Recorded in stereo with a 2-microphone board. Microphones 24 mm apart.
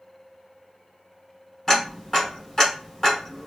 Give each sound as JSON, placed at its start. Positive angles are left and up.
{"t": 1.7, "sound": "ticking", "side_deg": 25, "distance_m": 1.3}